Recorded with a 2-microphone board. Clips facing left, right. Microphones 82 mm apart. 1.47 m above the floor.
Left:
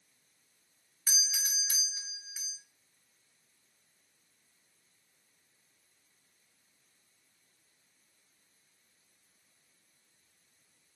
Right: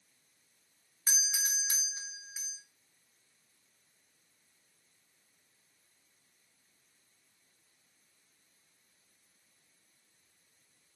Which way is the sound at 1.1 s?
35° right (ahead or behind).